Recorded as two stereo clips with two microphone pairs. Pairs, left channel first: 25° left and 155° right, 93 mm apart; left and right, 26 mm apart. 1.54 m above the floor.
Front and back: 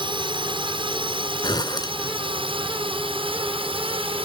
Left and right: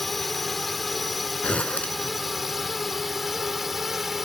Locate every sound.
0.0 s a drone: 175° left; by 4.3 s 170° right
1.4 s a zipper: 60° left